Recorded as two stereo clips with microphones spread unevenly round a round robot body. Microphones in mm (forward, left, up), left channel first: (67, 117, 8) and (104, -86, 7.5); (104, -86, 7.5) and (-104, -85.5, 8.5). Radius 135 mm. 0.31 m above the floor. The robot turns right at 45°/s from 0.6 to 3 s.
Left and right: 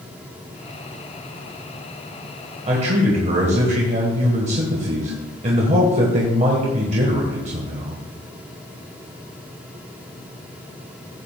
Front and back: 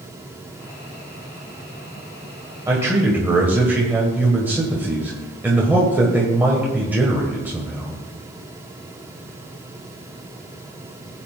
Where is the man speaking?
120° right, 1.7 m; by 8.0 s 105° right, 1.7 m.